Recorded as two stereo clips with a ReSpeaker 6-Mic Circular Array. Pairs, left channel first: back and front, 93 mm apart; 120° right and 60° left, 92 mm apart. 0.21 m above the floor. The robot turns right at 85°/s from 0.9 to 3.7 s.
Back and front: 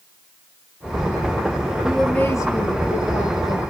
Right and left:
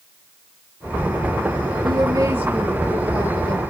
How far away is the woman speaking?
About 4.5 m.